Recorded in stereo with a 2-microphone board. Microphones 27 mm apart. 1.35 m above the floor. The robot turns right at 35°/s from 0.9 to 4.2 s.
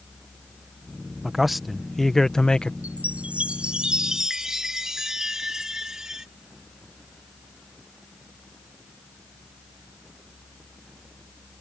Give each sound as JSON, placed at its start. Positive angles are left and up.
{"t": 1.2, "sound": "a man speaking", "azimuth_deg": -15}
{"t": 2.8, "sound": "a chime", "azimuth_deg": -70}